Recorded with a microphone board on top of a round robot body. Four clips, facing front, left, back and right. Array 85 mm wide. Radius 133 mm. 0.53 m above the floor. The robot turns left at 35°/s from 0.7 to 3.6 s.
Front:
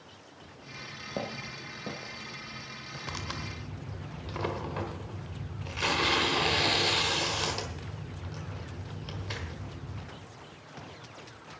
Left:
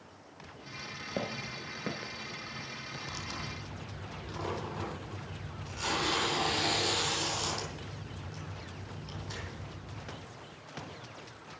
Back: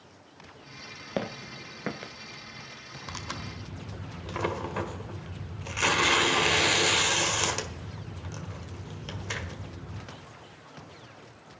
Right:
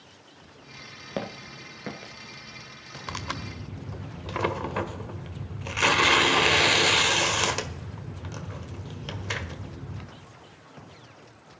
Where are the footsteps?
155° right, 0.5 m; by 2.1 s 175° left, 0.5 m.